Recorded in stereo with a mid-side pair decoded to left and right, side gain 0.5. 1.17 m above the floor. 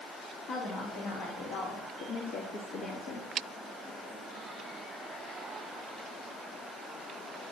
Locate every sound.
0.5 s a woman speaking: 65° left, 3.5 m; by 3.3 s 80° left, 1.7 m